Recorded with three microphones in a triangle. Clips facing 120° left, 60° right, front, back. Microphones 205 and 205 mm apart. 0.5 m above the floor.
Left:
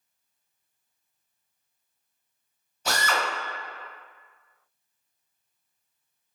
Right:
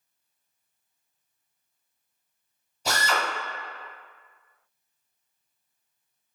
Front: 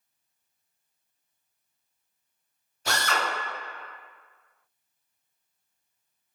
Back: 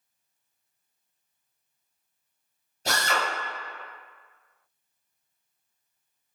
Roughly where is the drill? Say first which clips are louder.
Even, back 1 dB; behind right.